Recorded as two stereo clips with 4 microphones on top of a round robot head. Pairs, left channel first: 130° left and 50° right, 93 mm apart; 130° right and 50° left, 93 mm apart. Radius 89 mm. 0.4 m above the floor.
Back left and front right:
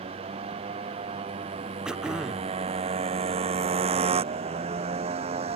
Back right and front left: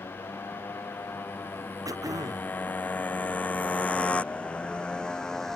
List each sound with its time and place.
0.0 s a motorcycle: 60° right; by 5.6 s 45° right
1.9 s throat clearing: 30° left